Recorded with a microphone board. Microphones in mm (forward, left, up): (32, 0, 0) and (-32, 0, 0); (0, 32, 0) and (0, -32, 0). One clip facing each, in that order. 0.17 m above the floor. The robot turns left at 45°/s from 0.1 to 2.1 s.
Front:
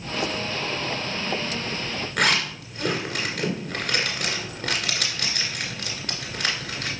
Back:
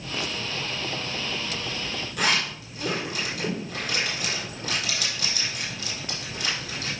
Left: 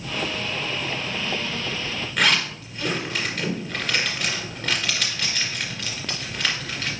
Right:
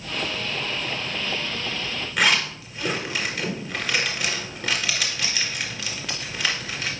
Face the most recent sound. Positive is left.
turn(degrees=-5)